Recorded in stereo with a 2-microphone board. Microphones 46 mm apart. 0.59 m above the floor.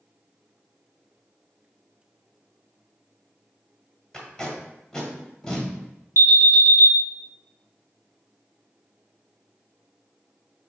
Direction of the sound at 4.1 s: 10° left (ahead or behind).